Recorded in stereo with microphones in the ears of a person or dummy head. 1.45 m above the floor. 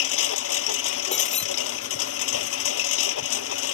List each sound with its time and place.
0.0 s a lawn mower: 80° left
1.1 s breaking glass: 35° left (ahead or behind)